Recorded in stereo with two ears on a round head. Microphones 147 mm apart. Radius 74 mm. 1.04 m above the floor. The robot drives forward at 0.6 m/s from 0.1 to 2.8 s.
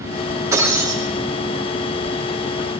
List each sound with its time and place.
0.5 s breaking glass: 20° right (ahead or behind), 5.5 m